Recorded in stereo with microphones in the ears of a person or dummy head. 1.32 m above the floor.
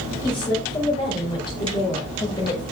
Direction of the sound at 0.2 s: 30° left (ahead or behind).